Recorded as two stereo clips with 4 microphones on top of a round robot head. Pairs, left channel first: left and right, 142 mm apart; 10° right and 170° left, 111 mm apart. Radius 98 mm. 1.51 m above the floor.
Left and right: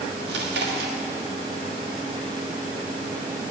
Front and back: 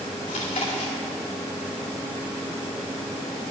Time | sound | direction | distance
0.3 | chewing | 70° right | 1.5 m